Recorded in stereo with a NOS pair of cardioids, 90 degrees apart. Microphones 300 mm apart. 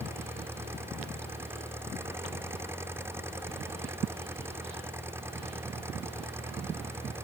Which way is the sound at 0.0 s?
10° right.